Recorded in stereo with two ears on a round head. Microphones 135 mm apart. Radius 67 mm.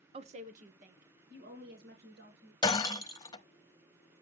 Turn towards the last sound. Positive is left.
turn(degrees=25)  # may be behind; listen again after turning